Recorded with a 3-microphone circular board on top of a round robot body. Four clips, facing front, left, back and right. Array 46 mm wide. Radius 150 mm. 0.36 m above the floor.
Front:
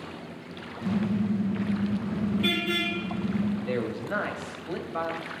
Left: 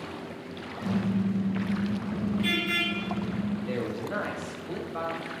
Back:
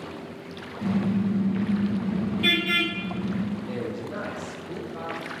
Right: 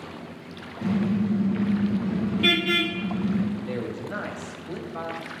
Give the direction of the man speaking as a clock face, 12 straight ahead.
12 o'clock.